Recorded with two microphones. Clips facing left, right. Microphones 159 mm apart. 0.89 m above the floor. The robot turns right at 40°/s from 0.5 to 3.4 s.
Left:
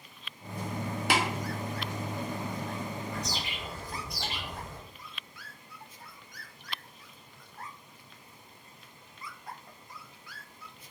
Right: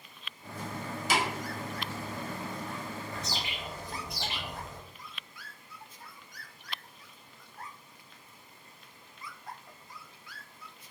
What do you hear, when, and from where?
1.1 s tapping: 70° left (ahead or behind), 0.6 m
3.1 s a bird: 30° right (ahead or behind), 0.8 m; by 4.8 s 20° right (ahead or behind), 0.8 m